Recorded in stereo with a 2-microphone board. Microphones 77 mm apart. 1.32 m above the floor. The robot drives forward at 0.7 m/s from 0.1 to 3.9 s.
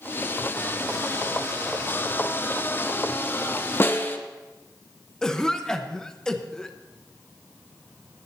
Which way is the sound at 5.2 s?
10° left (ahead or behind).